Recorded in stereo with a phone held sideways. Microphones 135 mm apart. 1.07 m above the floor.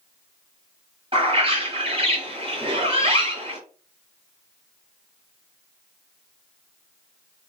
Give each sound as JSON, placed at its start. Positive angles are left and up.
{"t": 1.1, "sound": "a bird", "side_deg": -40, "distance_m": 1.1}